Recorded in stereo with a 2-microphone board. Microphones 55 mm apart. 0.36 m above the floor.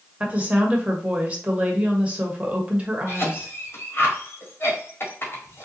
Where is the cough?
45° left (ahead or behind), 1.5 m.